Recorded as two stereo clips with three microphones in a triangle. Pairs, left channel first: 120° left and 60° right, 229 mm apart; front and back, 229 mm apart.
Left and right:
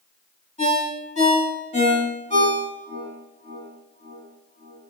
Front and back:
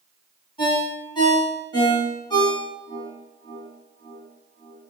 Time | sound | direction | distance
0.6 | a ringtone | 65° left | 1.3 m